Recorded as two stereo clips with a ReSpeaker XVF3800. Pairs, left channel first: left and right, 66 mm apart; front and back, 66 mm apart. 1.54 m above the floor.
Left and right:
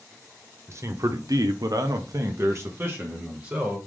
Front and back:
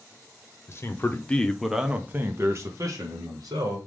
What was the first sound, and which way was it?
A man speaking, 45° right.